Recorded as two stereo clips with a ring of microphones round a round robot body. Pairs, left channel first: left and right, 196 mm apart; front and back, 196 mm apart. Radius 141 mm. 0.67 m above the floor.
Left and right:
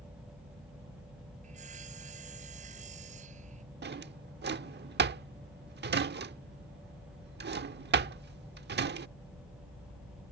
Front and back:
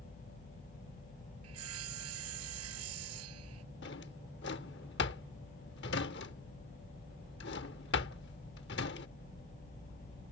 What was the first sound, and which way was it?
Sawing, 155° right.